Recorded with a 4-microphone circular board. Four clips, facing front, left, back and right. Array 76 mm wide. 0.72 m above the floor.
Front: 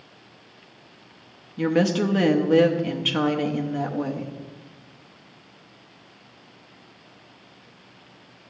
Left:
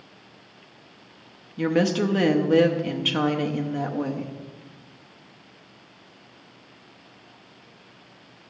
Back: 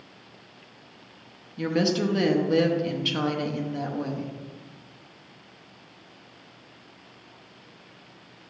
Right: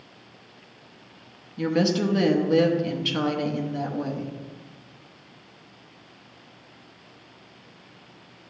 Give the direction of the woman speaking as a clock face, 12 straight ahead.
11 o'clock.